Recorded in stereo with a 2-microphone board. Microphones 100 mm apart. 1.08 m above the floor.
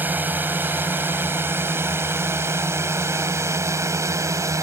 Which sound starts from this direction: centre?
A drone, at 0.0 s.